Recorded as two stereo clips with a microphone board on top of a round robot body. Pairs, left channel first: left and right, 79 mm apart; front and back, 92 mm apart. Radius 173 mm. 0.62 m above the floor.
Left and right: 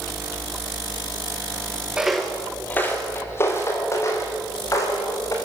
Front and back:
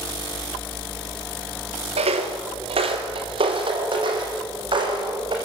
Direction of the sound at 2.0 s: 170° right.